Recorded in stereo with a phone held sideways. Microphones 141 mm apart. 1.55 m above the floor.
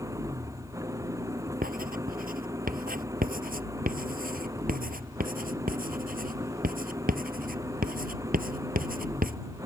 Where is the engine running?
20° right (ahead or behind).